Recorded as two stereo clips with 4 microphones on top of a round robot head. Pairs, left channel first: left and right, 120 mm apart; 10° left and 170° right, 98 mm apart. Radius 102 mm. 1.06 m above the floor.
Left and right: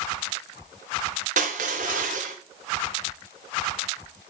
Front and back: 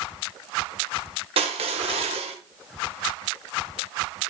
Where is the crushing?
125° right, 1.5 m.